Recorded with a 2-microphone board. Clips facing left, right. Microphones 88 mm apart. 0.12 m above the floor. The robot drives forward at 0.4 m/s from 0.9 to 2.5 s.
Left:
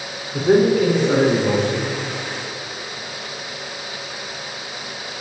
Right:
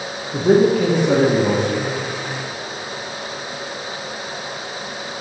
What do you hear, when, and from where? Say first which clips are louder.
0.3 s a man speaking: right 1 dB; 60° right (ahead or behind), 5 m